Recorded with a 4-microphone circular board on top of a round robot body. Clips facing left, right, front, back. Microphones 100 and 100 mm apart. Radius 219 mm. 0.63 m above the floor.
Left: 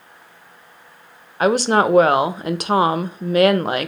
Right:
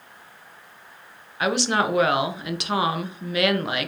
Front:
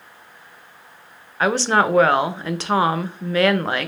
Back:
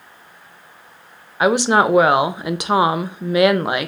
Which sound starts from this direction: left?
A woman speaking, at 1.4 s.